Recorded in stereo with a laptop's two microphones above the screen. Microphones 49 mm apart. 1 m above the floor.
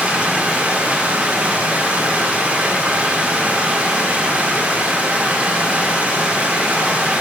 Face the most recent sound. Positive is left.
turn(degrees=-25)  # may be behind; listen again after turning